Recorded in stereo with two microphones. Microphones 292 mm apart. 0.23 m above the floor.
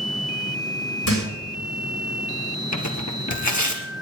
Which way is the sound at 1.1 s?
65° left (ahead or behind).